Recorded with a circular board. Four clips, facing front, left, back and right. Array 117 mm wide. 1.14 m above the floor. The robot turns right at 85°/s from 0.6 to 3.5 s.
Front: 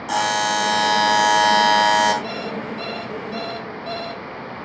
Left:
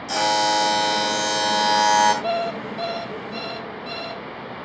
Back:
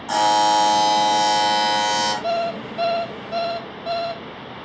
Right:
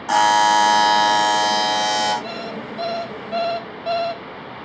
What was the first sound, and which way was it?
A buzzer, 85° right.